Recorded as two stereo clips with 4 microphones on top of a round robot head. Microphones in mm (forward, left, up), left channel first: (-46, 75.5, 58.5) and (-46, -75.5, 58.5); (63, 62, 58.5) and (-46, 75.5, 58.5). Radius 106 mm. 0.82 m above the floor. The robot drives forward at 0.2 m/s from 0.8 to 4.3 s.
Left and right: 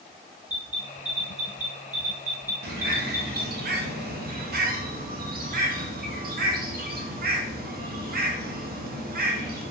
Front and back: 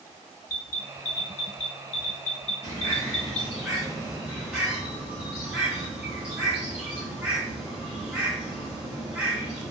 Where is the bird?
75° right, 0.6 m; by 9.7 s 105° right, 0.6 m.